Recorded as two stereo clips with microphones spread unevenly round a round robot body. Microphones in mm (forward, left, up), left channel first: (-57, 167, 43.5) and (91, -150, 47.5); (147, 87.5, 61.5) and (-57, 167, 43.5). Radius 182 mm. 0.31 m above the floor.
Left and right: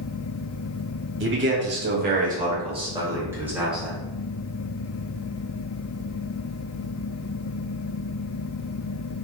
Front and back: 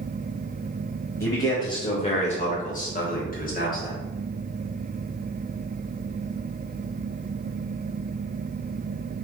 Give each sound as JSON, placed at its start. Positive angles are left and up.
{"t": 1.2, "sound": "a man speaking", "azimuth_deg": -100, "distance_m": 1.1}